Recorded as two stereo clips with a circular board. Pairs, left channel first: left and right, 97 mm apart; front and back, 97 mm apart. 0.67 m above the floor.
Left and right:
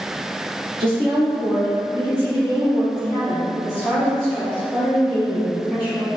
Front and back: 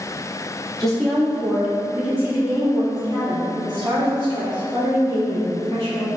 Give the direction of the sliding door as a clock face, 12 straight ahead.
I don't hear a sliding door.